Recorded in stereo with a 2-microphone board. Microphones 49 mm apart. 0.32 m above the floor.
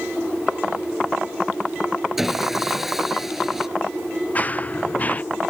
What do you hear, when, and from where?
2.2 s sawing: 5° right (ahead or behind)
4.3 s running footsteps: 30° left (ahead or behind)